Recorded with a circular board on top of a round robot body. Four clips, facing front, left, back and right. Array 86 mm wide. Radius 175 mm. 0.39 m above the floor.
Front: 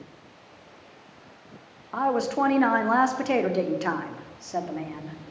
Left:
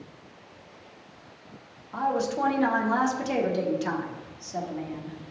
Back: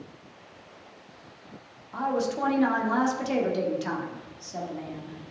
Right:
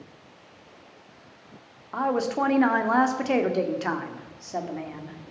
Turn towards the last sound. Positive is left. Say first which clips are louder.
# right 2 dB, front 3 dB
turn(degrees=-45)